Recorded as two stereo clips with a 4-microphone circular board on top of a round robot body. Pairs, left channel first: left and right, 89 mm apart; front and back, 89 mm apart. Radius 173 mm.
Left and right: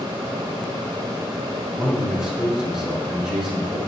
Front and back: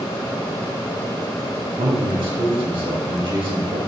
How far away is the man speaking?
About 4.5 m.